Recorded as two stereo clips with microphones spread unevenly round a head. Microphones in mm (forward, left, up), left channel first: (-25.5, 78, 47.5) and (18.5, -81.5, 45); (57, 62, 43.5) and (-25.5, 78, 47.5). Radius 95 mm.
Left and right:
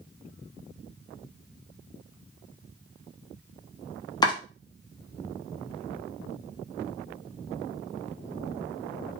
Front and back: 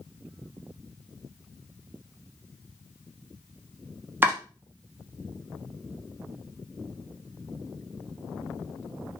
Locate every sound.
4.2 s chopping: 145° left, 0.9 m